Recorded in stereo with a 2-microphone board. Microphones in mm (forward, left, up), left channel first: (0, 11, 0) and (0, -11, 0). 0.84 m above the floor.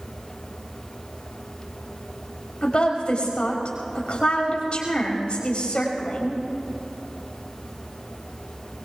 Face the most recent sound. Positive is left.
turn(degrees=50)  # may be behind; listen again after turning